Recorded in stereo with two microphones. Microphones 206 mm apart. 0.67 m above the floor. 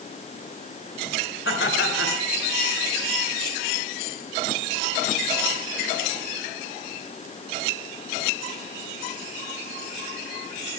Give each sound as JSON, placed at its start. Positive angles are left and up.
{"t": 1.4, "sound": "laughter", "side_deg": 70, "distance_m": 8.0}